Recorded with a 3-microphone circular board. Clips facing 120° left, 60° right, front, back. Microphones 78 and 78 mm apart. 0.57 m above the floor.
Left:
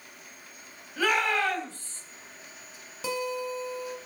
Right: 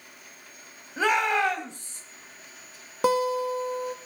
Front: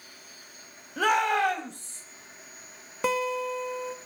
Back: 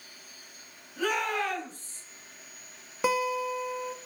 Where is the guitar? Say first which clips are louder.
Right 8 dB, even; 95° right, 0.9 m.